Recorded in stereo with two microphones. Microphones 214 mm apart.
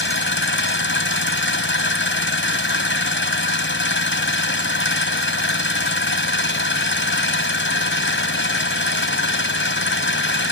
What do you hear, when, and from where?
0.0 s an engine running: 65° left (ahead or behind)